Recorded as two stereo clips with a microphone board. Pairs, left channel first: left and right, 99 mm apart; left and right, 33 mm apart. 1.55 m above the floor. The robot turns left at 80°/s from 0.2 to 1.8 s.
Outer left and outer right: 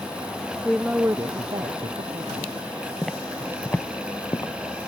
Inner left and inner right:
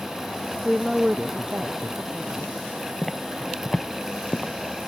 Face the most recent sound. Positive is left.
turn(degrees=40)  # may be behind; listen again after turning